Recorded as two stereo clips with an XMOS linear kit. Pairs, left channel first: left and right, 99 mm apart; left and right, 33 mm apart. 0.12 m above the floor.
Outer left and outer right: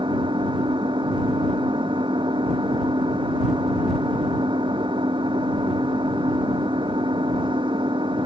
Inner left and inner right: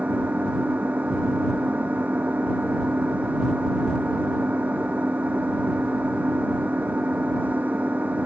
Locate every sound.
0.0 s an engine running: 55° right (ahead or behind)